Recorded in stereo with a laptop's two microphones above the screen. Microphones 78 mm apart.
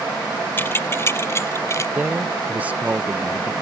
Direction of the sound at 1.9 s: 20° right (ahead or behind).